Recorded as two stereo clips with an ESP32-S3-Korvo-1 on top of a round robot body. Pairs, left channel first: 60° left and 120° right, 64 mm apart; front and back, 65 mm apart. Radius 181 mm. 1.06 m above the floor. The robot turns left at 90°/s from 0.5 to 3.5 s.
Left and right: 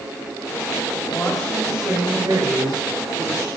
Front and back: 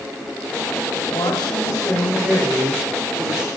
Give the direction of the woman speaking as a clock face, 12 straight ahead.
12 o'clock.